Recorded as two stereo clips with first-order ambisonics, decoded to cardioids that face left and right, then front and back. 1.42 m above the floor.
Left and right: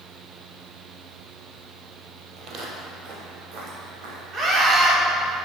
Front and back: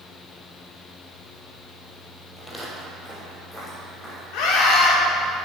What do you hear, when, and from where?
2.4 s footsteps: 80° right, 1.7 m; by 4.2 s 85° right, 4 m
4.3 s a scream: 25° right, 2 m